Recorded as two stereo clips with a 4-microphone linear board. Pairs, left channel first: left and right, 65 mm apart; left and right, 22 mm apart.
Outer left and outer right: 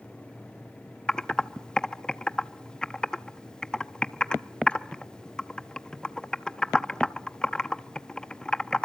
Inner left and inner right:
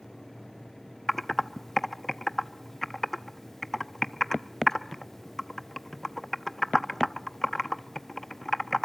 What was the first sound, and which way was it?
Typing on a keyboard, 15° left (ahead or behind).